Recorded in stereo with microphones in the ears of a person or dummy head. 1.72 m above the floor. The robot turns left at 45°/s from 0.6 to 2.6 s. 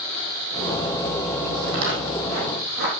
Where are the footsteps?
60° right (ahead or behind), 3.5 m; by 2.9 s 30° right (ahead or behind), 3 m.